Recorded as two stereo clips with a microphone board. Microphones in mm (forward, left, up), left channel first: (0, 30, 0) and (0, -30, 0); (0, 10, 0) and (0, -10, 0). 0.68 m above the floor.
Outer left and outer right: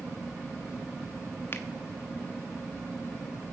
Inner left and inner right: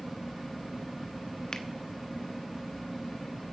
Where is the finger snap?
40° left (ahead or behind), 1.1 m.